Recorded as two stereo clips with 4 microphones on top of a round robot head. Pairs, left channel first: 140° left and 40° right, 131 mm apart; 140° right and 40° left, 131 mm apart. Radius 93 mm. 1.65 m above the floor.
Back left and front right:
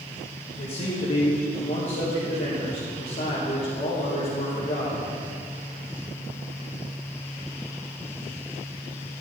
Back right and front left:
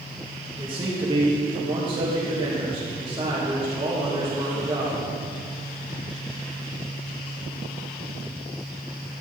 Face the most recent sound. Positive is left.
turn(degrees=105)